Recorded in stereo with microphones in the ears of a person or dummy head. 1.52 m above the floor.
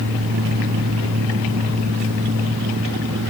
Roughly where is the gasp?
I don't hear a gasp.